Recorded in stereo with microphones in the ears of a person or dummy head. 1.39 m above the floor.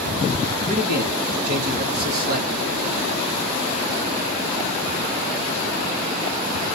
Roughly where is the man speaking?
Right.